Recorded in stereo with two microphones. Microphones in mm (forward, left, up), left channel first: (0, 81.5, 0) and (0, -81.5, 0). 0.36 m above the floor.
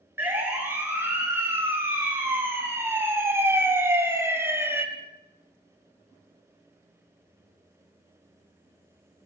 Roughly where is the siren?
Centre.